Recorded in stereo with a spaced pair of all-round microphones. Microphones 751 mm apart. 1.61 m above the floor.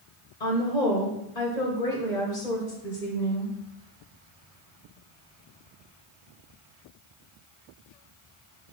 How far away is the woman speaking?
About 1.8 m.